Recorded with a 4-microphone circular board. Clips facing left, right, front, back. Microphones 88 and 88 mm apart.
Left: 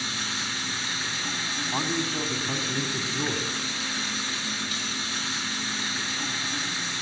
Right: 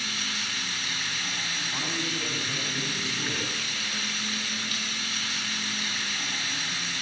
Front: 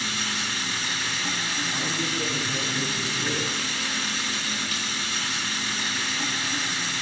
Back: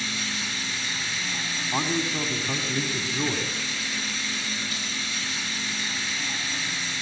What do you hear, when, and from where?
0.0 s running water: 30° left, 5.5 m
1.7 s a man speaking: 140° left, 3.5 m